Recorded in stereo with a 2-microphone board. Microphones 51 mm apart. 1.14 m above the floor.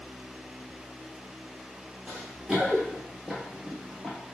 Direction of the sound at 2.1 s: 15° right (ahead or behind).